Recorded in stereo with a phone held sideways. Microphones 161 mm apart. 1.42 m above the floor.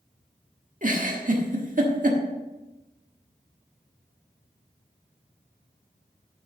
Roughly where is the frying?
I don't hear frying.